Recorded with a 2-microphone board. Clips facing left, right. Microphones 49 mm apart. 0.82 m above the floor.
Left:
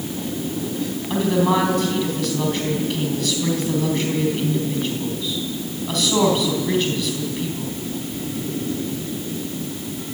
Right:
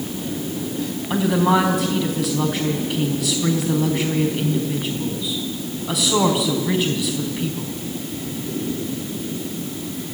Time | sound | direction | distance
1.1 | a woman speaking | 10° right (ahead or behind) | 5 m